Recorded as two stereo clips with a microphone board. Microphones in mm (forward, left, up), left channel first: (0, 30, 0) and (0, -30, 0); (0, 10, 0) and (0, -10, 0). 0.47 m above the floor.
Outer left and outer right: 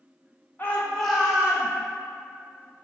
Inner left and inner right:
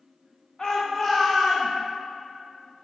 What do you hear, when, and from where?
0.6 s a shout: 30° left (ahead or behind), 1.0 m; by 1.7 s 20° right (ahead or behind), 1.4 m